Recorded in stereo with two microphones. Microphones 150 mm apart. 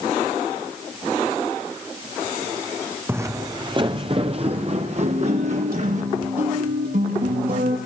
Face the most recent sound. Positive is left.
turn(degrees=-75)  # may be behind; listen again after turning